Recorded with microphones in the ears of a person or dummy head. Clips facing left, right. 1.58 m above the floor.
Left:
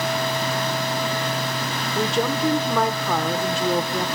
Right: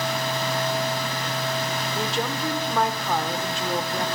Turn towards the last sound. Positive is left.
turn(degrees=70)  # may be behind; listen again after turning